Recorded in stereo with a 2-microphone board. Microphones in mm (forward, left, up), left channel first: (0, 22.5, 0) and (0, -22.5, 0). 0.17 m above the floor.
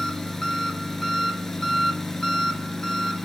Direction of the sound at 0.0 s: 10° left (ahead or behind).